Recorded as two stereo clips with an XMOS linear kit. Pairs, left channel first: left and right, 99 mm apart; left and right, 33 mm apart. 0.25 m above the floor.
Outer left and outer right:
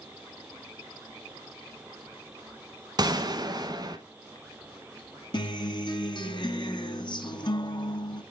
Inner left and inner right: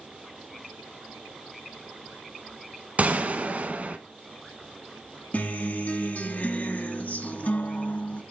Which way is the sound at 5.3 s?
50° left (ahead or behind).